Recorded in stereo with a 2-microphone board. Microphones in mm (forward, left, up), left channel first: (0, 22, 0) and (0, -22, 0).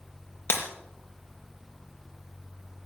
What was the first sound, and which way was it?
Breaking glass, 75° left (ahead or behind).